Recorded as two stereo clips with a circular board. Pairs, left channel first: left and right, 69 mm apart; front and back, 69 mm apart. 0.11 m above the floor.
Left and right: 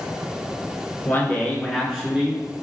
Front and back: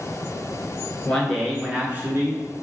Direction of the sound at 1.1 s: 70° left.